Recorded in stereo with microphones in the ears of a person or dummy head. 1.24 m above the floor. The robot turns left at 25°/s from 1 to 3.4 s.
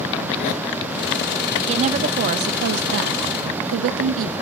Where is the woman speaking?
35° right, 0.7 m; by 4.3 s 75° right, 0.7 m.